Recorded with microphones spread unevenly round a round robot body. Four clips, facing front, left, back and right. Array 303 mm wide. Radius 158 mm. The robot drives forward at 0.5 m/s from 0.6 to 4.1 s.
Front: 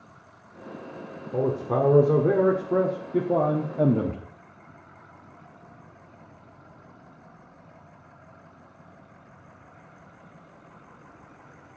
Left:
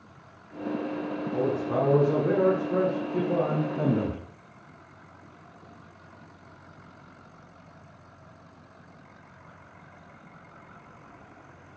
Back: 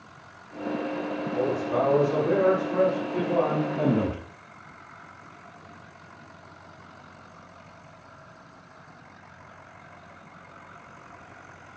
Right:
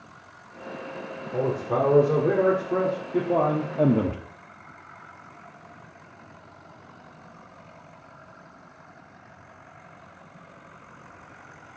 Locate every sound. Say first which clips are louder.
1.3 s a man speaking: right 2 dB, front 2 dB; 20° right, 1.6 m; by 4.2 s 80° right, 0.8 m